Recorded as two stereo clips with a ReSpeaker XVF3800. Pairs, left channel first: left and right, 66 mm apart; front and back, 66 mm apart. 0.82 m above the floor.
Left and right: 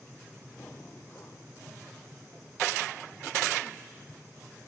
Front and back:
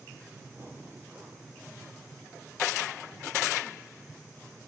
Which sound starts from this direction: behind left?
Breathing, at 0.6 s.